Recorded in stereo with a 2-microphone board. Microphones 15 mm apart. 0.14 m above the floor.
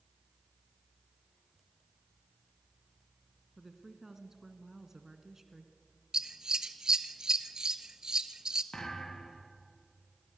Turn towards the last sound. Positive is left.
turn(degrees=85)